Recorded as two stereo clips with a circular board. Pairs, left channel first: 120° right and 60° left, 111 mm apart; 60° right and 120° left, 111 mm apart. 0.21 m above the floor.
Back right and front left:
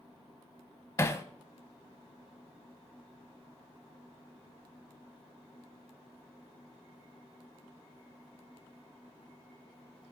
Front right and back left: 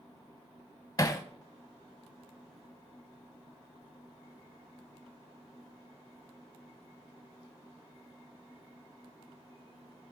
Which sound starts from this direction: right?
Hammering, at 1.0 s.